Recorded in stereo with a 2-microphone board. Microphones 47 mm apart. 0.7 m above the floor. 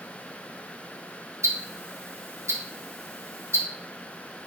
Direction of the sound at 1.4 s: 75° right (ahead or behind).